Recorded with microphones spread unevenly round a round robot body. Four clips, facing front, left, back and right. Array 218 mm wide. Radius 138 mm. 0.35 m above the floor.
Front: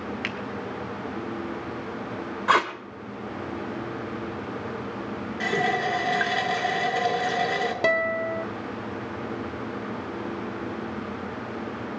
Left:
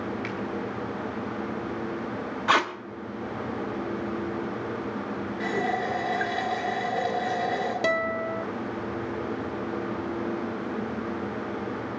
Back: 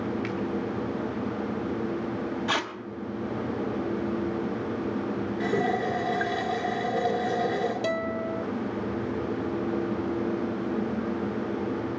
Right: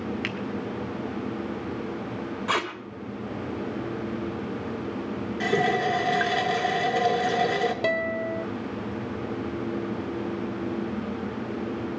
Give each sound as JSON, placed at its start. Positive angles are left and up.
{"t": 0.2, "sound": "a finger snap", "azimuth_deg": -95, "distance_m": 1.8}
{"t": 2.5, "sound": "tape being pulled", "azimuth_deg": 15, "distance_m": 1.3}
{"t": 5.4, "sound": "a running tap", "azimuth_deg": -90, "distance_m": 2.5}
{"t": 7.8, "sound": "a guitar", "azimuth_deg": -20, "distance_m": 0.8}